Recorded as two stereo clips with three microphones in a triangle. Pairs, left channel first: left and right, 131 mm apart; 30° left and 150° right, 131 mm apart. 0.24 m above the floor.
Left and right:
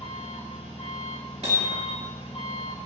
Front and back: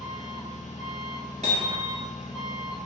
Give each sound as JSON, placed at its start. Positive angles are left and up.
{"t": 0.0, "sound": "an engine running", "azimuth_deg": 50, "distance_m": 1.4}
{"t": 1.4, "sound": "hammering", "azimuth_deg": -115, "distance_m": 1.7}